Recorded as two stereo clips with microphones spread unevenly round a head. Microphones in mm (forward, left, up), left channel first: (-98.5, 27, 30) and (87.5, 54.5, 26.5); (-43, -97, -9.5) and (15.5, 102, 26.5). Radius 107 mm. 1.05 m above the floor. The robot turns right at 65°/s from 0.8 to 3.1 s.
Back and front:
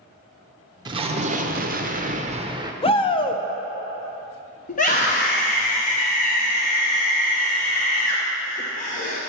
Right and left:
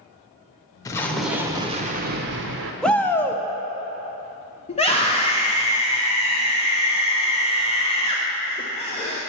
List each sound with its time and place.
0.8 s an explosion: 50° right, 0.6 m; by 2.7 s 70° left, 0.6 m
2.8 s a shout: 165° right, 0.6 m; by 3.4 s 150° right, 0.6 m
4.7 s a scream: 140° right, 0.8 m